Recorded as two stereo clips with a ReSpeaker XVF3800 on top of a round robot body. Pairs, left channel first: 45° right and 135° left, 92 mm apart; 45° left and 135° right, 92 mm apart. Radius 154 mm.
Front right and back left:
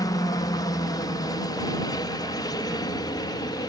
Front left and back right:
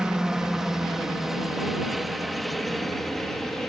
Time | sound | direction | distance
0.0 | a helicopter | 55° right | ?